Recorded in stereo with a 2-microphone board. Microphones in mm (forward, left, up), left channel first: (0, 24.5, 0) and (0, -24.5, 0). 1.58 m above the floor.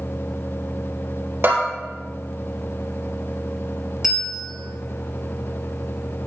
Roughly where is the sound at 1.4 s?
Right.